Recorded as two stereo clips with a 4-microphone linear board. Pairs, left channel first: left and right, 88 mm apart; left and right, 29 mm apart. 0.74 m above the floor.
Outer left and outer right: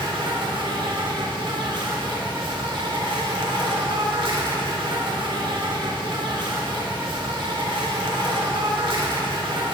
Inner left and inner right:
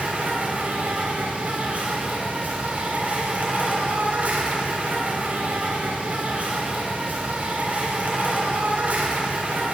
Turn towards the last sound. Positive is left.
turn(degrees=-65)  # may be behind; listen again after turning